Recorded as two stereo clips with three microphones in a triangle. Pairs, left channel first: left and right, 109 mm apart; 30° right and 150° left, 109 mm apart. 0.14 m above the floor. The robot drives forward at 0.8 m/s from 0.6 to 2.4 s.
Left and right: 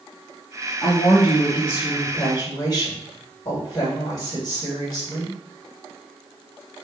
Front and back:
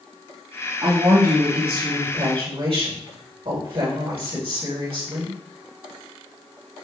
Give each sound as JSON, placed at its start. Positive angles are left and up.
{"t": 0.8, "sound": "a woman speaking", "azimuth_deg": 110, "distance_m": 2.5}